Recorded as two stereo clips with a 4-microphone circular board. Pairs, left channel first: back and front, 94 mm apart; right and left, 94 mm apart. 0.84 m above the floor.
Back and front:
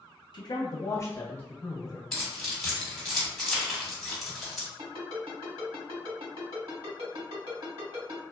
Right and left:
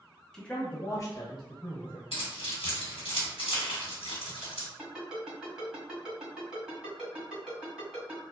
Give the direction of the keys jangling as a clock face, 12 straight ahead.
3 o'clock.